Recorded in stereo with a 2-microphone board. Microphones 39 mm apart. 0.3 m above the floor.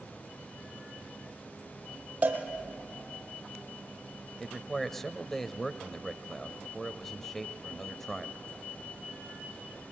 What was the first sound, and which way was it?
A cowbell, 35° right (ahead or behind).